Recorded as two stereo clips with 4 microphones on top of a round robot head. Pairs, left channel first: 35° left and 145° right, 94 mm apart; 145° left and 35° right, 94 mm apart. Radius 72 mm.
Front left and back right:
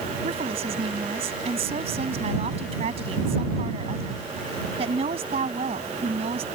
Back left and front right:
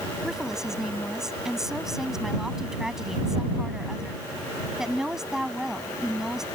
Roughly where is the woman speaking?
Behind right.